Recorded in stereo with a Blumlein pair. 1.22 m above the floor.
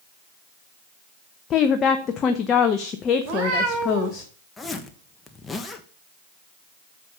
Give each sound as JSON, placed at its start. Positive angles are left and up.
{"t": 1.5, "sound": "a woman speaking", "azimuth_deg": 25, "distance_m": 0.9}
{"t": 3.2, "sound": "a cat meowing", "azimuth_deg": -40, "distance_m": 3.0}
{"t": 4.6, "sound": "a zipper", "azimuth_deg": 10, "distance_m": 1.2}